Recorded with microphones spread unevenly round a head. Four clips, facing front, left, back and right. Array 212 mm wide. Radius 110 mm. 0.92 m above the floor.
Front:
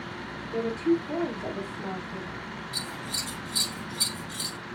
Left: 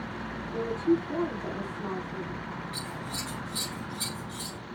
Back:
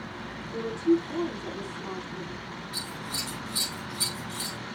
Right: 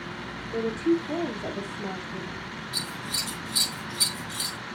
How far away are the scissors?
About 7 m.